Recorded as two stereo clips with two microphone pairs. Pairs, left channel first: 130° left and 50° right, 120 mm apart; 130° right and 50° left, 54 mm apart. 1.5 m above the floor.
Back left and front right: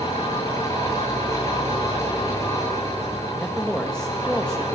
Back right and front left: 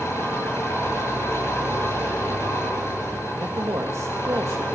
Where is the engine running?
165° right, 9 m.